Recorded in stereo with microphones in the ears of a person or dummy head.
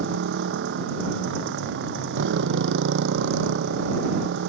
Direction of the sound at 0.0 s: 55° right (ahead or behind).